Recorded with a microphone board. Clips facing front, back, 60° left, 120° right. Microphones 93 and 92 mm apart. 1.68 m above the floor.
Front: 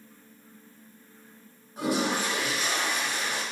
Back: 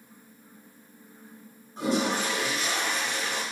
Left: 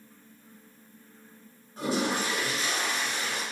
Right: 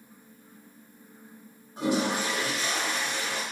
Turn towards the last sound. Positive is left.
turn(degrees=-65)